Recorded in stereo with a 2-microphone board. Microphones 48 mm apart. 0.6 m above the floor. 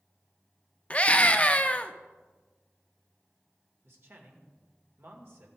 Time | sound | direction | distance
0.9 | a scream | 30° left (ahead or behind) | 0.6 m
3.8 | a man speaking | 60° right (ahead or behind) | 2 m